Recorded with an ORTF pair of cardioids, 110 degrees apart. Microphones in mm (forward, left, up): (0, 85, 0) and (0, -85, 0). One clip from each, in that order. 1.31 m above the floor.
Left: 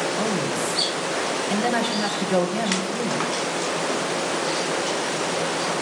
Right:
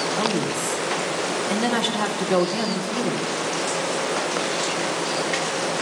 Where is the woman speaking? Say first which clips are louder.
Right 1 dB; 60° right, 2 m.